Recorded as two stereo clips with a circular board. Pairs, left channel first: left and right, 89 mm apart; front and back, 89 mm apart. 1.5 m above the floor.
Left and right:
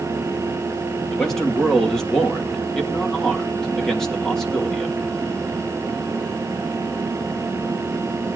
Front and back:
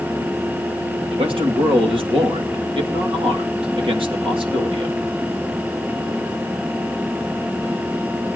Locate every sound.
1.1 s a man speaking: 175° left, 3 m